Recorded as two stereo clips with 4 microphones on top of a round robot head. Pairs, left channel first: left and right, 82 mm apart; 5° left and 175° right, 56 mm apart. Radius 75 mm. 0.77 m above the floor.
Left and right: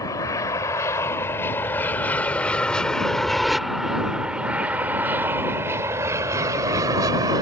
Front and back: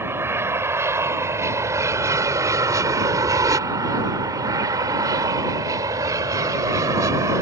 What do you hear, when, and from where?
0.0 s an aircraft: 145° left; by 7.4 s 135° right